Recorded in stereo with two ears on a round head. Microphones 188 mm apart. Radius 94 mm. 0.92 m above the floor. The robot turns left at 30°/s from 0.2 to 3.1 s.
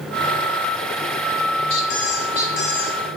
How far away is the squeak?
About 1.3 m.